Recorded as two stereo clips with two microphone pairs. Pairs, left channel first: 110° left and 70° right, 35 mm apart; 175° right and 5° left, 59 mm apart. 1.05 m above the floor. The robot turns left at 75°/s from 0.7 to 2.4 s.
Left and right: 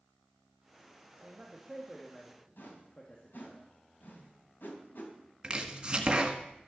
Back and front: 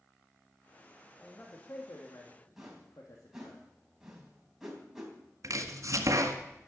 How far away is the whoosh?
About 3.5 m.